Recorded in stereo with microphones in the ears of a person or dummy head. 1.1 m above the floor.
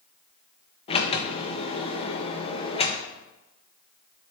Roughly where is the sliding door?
Left.